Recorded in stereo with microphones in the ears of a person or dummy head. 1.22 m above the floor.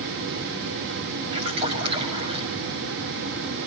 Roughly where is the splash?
Right.